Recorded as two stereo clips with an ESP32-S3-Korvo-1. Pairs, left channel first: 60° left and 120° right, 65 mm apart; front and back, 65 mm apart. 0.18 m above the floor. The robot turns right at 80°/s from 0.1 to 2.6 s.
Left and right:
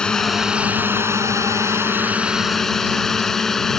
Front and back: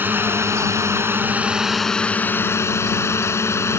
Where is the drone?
135° left; by 3.8 s 20° right.